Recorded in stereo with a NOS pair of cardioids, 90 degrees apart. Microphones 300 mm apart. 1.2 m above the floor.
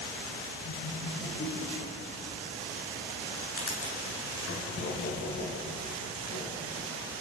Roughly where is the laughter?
Ahead left.